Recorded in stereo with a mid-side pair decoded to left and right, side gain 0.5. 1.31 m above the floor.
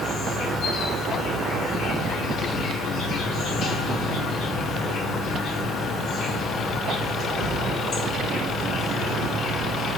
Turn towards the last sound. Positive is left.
turn(degrees=65)